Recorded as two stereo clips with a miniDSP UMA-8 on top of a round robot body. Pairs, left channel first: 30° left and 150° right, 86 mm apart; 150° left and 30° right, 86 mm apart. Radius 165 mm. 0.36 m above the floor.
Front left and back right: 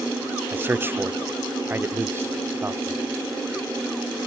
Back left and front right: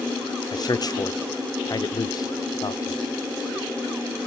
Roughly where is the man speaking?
Behind left.